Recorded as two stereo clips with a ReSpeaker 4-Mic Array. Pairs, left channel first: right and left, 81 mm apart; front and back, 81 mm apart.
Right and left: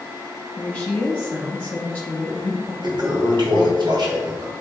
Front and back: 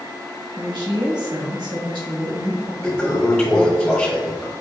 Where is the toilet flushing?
80° left, 1.6 m.